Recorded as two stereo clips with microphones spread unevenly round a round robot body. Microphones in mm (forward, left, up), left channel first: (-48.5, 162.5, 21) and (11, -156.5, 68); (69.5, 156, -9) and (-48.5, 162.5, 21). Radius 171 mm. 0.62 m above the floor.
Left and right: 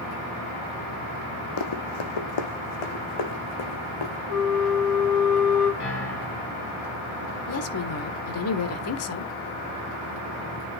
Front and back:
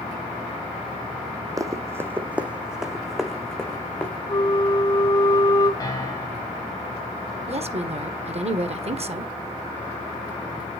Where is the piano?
50° left, 4 m.